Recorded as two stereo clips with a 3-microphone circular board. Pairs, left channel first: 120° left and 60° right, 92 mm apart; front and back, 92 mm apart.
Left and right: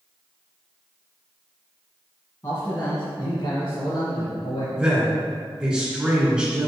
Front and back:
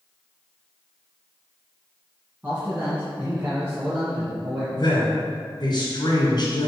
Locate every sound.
2.4 s a man speaking: 110° left, 2.5 m
4.8 s a man speaking: 15° left, 2 m